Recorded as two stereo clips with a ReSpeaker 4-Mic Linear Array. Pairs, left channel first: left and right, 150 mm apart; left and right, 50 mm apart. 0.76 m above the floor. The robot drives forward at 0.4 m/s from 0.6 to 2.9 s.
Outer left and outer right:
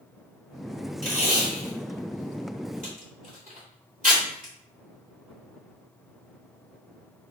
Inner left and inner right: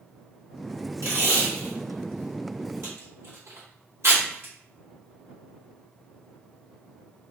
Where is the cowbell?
No cowbell in this recording.